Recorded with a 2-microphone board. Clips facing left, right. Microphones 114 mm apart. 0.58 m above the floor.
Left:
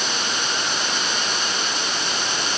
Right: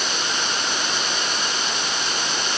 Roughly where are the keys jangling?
I don't hear keys jangling.